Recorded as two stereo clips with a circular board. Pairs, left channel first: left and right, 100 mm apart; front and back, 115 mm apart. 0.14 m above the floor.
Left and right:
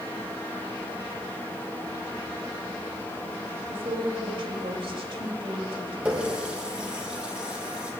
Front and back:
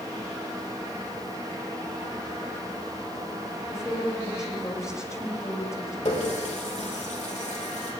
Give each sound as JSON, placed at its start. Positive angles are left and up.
{"t": 3.7, "sound": "a woman speaking", "azimuth_deg": -60, "distance_m": 6.5}
{"t": 6.0, "sound": "a running tap", "azimuth_deg": -10, "distance_m": 3.5}